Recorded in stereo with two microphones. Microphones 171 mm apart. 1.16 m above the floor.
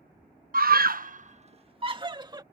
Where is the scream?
60° right (ahead or behind); by 2.4 s 25° right (ahead or behind).